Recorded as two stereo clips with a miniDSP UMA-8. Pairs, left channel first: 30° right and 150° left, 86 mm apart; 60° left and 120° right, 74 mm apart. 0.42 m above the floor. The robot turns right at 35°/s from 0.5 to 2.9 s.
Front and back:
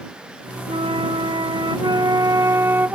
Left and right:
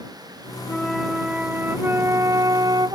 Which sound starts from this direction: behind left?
A flute, at 0.7 s.